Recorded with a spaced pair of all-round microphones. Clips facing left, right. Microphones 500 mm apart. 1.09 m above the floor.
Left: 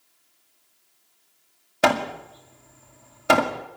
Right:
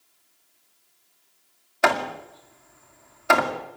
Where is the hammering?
50° left (ahead or behind), 2 m.